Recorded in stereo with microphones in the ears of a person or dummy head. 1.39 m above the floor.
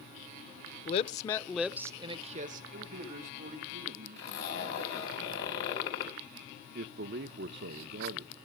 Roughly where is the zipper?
Left.